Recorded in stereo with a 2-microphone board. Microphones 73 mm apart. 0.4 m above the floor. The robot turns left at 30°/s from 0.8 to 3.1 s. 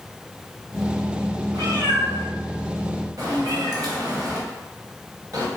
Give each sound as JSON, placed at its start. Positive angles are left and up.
{"t": 1.5, "sound": "a cat meowing", "side_deg": -65, "distance_m": 0.7}